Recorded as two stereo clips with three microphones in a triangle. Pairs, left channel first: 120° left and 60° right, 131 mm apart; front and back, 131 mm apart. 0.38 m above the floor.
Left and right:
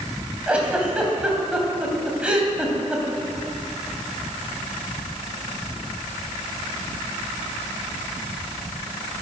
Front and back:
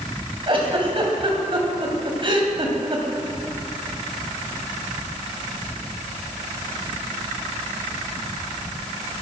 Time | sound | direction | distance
0.5 | a giggle | 140° right | 2.5 m